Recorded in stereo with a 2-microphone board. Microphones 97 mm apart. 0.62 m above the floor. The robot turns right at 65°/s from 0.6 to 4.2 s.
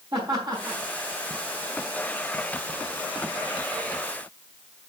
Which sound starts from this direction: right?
Laughter, at 0.1 s.